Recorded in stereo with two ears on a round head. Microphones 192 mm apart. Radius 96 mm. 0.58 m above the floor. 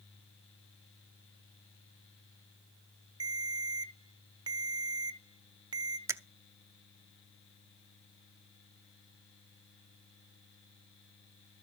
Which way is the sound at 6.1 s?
15° right (ahead or behind).